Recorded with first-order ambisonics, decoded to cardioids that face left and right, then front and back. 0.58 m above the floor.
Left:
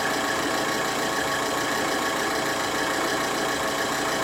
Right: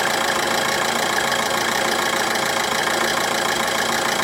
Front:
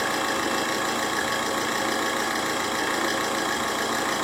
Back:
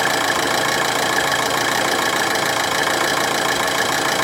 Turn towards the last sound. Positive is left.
turn(degrees=-145)